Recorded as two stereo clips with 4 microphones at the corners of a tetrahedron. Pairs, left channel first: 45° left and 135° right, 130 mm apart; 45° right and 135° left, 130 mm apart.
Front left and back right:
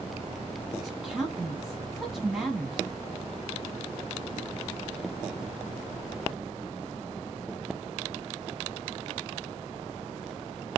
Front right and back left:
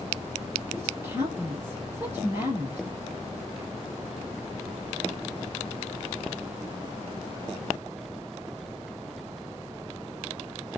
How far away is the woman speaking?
About 1.3 m.